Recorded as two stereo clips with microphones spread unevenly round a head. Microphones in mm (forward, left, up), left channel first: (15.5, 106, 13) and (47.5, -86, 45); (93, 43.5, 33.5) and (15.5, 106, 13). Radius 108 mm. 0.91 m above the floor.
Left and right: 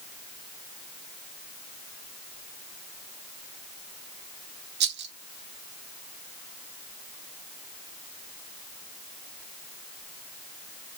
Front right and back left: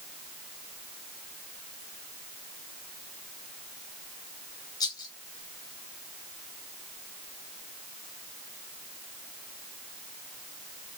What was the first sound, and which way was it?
A rattle, 95° right.